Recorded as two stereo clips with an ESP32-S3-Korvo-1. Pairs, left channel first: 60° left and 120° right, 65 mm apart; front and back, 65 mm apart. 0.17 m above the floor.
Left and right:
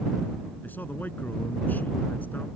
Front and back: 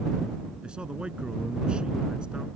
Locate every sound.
0.6 s a man speaking: 110° left